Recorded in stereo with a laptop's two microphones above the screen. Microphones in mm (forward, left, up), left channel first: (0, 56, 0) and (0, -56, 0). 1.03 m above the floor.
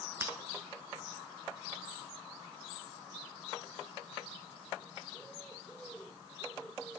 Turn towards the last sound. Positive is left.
turn(degrees=-20)  # may be behind; listen again after turning